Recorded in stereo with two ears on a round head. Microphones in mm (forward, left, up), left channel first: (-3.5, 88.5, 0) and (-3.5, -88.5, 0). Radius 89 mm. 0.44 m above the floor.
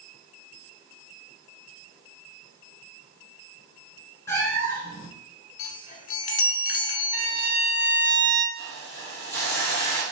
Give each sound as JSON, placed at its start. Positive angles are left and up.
{"t": 4.3, "sound": "a cat meowing", "side_deg": 15, "distance_m": 1.4}
{"t": 5.6, "sound": "a chime", "side_deg": 45, "distance_m": 0.8}
{"t": 7.1, "sound": "a violin", "side_deg": -45, "distance_m": 0.6}
{"t": 8.6, "sound": "a hiss", "side_deg": 15, "distance_m": 2.0}